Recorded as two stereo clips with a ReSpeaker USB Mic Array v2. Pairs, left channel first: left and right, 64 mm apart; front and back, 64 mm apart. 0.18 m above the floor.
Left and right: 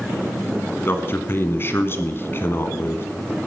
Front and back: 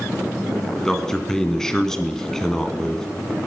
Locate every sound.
0.8 s a man speaking: 75° left, 1.6 m